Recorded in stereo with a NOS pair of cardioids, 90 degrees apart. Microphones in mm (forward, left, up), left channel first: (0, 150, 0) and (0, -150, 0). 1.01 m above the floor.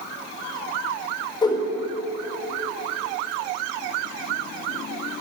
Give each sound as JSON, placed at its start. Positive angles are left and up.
{"t": 1.4, "sound": "a whoosh", "azimuth_deg": 15, "distance_m": 1.1}